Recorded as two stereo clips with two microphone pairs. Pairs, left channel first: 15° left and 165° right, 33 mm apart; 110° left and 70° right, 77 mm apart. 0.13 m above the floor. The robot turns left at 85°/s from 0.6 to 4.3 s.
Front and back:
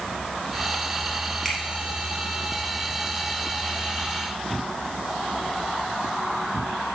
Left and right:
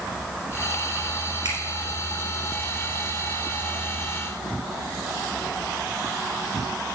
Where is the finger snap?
65° right, 3 m; by 1.6 s 75° right, 3 m.